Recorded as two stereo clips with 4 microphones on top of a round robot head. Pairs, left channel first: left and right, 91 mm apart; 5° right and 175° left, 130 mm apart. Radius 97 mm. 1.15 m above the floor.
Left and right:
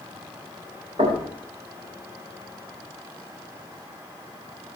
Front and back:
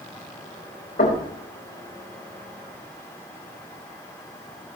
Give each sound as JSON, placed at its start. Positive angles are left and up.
{"t": 1.0, "sound": "knocking", "azimuth_deg": -40, "distance_m": 5.0}